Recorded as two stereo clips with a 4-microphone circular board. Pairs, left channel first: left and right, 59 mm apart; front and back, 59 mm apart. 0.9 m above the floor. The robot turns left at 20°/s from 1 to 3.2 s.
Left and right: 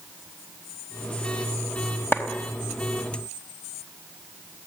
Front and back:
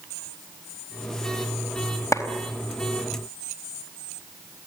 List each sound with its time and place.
2.1 s a clap: 35° left, 4 m